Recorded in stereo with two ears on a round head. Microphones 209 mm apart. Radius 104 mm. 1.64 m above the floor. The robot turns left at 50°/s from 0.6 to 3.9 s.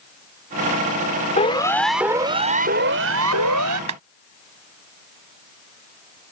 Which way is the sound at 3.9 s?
85° right.